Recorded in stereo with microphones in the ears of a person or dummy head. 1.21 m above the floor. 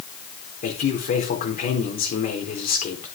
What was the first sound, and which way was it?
A man speaking, 40° left (ahead or behind).